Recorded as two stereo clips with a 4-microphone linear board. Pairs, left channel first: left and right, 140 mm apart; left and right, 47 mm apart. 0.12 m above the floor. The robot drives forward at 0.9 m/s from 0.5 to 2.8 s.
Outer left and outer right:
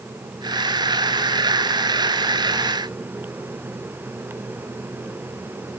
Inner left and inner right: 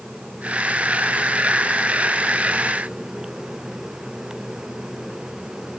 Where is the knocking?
I don't hear knocking.